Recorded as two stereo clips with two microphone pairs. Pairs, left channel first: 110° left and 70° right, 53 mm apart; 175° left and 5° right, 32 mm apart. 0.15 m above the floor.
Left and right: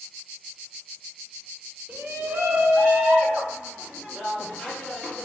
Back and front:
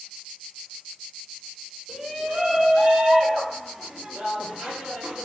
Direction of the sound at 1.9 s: 55° right.